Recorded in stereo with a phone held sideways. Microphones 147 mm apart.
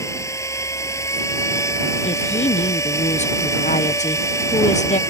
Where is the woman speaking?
50° left (ahead or behind).